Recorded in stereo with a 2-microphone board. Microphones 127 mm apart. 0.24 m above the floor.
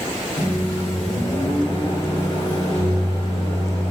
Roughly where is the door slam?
No door slam in this recording.